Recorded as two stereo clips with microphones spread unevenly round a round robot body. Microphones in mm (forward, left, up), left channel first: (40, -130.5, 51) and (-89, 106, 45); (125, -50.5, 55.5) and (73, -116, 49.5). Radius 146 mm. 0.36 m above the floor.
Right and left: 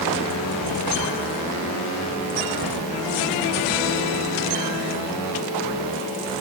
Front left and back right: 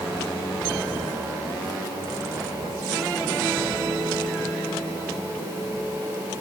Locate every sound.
Only background noise.